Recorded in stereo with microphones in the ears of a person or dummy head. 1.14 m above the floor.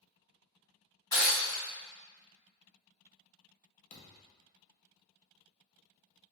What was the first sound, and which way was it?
Breaking glass, 20° left (ahead or behind).